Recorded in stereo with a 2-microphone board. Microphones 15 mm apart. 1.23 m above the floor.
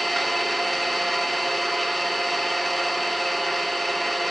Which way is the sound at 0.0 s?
15° left (ahead or behind).